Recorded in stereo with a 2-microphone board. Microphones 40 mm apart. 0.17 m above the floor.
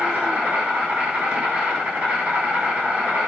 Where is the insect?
30° right (ahead or behind), 6 m.